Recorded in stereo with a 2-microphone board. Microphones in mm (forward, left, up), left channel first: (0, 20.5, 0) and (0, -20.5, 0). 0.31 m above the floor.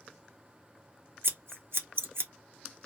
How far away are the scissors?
About 0.7 m.